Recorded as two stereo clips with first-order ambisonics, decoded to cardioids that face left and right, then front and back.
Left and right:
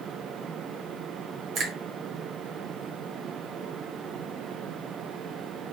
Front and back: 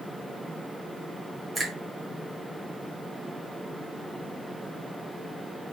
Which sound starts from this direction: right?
A finger snap, at 1.6 s.